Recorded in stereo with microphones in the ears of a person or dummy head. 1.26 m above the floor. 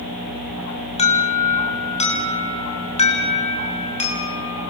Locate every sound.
1.0 s an alarm: 35° left (ahead or behind), 6 m